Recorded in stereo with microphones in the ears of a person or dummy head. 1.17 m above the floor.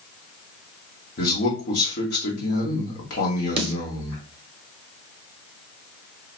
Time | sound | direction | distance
1.2 | a man speaking | 50° left (ahead or behind) | 1.2 m
3.6 | a snare drum | 35° right (ahead or behind) | 0.6 m